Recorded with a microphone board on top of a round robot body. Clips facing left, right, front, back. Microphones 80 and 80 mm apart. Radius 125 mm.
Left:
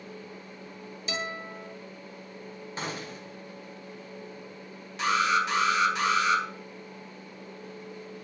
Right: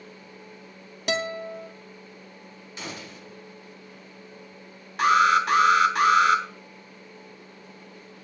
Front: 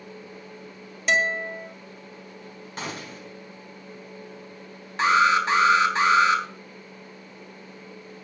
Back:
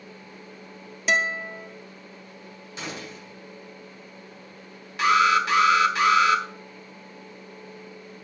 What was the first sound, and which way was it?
A guitar, 90° right.